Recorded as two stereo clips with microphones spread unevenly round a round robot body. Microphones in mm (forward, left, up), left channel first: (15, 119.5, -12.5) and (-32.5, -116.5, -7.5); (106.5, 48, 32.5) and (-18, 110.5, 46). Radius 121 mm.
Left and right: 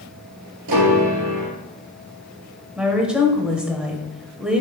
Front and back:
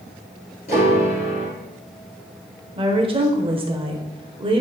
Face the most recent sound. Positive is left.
turn(degrees=175)